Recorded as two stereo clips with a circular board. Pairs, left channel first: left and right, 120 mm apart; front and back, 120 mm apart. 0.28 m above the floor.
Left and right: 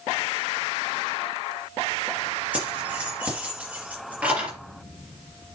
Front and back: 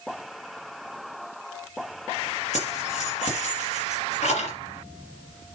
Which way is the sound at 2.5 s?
10° right.